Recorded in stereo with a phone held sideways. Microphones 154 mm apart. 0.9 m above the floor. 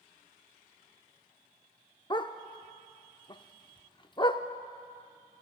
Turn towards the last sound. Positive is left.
turn(degrees=30)  # may be behind; listen again after turning